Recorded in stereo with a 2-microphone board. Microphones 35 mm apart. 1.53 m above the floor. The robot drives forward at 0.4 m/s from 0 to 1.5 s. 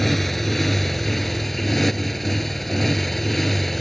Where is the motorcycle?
10° left (ahead or behind).